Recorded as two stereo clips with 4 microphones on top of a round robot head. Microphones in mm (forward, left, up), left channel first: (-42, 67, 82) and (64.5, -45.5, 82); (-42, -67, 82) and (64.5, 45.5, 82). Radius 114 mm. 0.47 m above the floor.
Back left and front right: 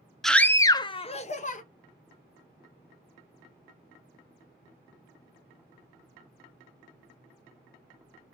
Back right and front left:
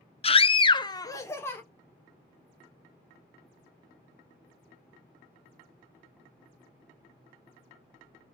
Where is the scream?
140° right, 0.9 m; by 1.6 s 155° left, 1.3 m.